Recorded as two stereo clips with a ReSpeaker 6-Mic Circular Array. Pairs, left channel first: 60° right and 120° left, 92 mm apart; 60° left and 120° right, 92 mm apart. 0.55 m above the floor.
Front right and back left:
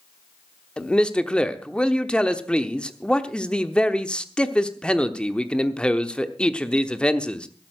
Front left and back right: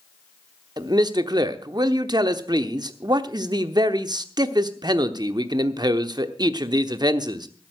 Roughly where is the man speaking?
Behind right.